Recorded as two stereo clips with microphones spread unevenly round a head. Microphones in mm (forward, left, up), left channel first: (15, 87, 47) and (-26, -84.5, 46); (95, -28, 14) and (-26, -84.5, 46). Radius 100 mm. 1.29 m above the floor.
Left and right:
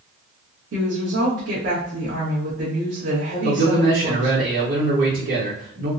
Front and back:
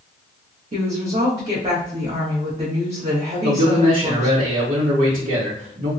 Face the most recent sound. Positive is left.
turn(degrees=-130)